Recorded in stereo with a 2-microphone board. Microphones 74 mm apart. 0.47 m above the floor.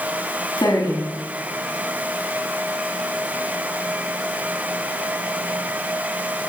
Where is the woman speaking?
70° left (ahead or behind), 4.5 m.